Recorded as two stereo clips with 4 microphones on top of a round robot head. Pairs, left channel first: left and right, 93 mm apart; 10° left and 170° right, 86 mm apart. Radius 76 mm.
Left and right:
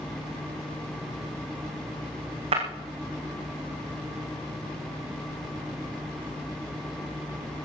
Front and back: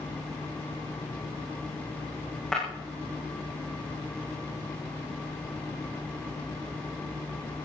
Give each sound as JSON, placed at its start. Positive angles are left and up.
{"t": 2.5, "sound": "breaking glass", "azimuth_deg": -75, "distance_m": 6.0}